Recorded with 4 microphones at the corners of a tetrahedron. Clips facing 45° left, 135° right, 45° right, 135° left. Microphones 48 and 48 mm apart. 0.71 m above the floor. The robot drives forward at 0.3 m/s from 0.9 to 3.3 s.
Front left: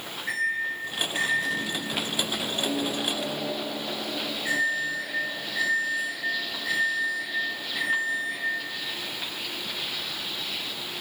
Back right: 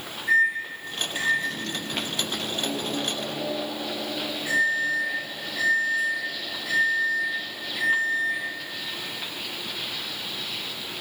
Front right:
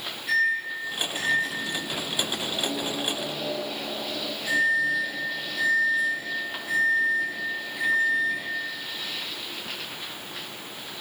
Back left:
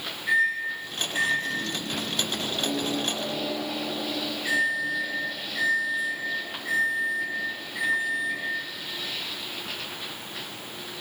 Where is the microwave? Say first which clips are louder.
Back right 6 dB, even; 70° left, 1.4 m; by 8.5 s 105° left, 1.3 m.